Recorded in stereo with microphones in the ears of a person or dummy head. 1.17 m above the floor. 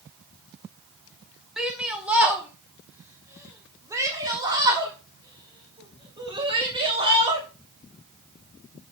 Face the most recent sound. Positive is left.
turn(degrees=-25)  # may be behind; listen again after turning